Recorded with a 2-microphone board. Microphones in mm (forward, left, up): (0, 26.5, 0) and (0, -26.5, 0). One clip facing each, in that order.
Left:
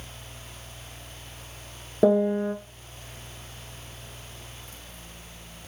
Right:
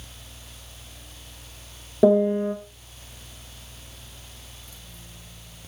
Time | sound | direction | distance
2.0 | a piano | 5° left (ahead or behind) | 1.2 m